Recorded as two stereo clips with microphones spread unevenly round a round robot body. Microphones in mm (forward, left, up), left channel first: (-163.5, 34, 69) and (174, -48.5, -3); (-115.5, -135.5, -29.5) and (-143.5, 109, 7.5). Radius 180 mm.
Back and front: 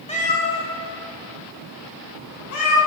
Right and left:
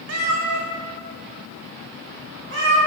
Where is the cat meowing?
95° left, 1.2 m; by 2.8 s 125° left, 3.5 m.